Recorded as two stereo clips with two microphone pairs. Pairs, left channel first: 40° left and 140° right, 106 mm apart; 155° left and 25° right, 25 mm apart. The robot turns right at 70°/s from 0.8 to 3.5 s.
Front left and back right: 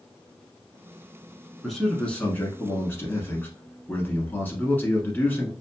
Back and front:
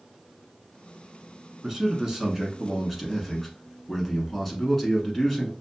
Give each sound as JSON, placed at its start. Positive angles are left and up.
{"t": 1.6, "sound": "a man speaking", "azimuth_deg": -55, "distance_m": 1.1}